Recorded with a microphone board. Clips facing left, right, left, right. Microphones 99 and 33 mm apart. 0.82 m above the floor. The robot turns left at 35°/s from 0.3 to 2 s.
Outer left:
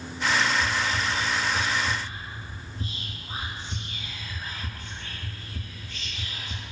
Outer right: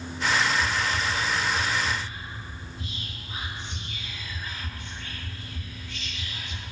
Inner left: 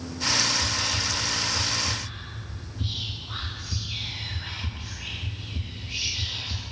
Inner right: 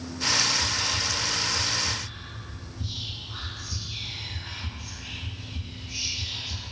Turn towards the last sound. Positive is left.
turn(degrees=35)  # may be behind; listen again after turning